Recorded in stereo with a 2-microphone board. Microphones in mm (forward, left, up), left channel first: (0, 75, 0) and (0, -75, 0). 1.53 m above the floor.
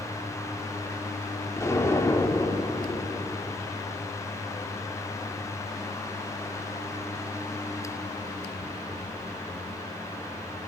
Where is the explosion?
20° left (ahead or behind), 5 m.